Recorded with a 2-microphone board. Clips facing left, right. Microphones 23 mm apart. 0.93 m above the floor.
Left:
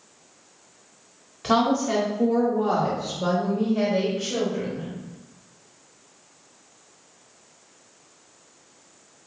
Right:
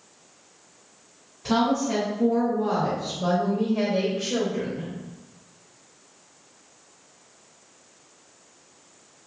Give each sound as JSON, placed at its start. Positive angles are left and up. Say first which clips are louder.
{"t": 1.4, "sound": "a woman speaking", "louder": "left 2 dB", "side_deg": 75, "distance_m": 1.2}